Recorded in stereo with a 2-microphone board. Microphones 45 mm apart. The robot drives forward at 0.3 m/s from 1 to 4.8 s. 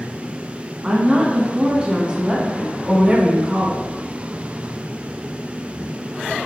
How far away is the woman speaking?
About 1.4 m.